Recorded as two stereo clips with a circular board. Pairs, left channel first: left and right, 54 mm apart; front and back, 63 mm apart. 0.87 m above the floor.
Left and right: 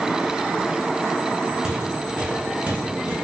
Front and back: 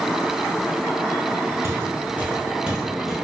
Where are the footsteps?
160° right, 1.0 m; by 3.1 s 90° right, 1.0 m.